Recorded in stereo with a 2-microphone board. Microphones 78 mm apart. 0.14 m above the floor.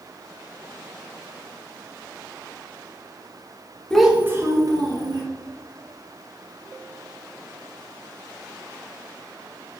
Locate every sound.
3.9 s a child speaking: 10° left (ahead or behind), 0.7 m; by 5.2 s 65° right (ahead or behind), 1.8 m